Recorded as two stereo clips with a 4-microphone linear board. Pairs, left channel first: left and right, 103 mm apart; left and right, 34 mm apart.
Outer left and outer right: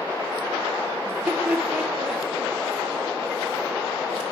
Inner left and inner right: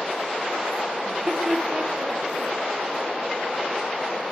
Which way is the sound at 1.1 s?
20° right (ahead or behind).